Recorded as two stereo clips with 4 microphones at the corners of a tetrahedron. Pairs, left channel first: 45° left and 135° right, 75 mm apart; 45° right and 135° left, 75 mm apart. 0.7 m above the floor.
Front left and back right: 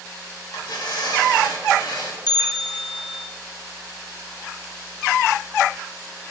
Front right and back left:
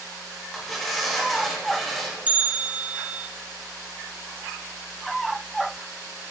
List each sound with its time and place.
0.5 s tearing paper: 40° left, 2 m
2.3 s a bell: 65° left, 0.6 m